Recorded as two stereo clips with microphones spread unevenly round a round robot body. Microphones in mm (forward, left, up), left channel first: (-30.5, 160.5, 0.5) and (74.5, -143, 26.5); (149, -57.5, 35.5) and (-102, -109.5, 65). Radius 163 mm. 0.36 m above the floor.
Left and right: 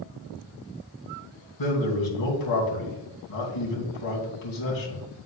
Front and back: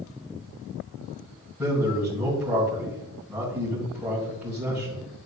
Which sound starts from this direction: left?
A man speaking, at 1.6 s.